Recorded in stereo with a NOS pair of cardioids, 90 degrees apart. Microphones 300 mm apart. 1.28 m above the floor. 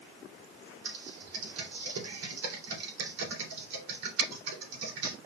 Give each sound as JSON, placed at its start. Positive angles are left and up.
{"t": 0.8, "sound": "typing on a keyboard", "azimuth_deg": -60, "distance_m": 2.5}